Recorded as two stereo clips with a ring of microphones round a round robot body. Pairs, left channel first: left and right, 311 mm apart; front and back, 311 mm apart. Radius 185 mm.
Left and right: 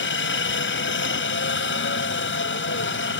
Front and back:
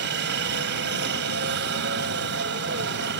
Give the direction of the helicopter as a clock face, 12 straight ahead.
8 o'clock.